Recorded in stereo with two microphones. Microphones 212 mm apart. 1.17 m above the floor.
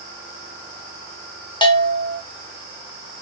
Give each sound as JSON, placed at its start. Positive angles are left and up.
{"t": 1.6, "sound": "a bell", "side_deg": 20, "distance_m": 0.8}